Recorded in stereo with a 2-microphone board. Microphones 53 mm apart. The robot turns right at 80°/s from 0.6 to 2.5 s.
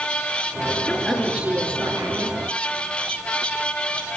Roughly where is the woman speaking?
Behind left.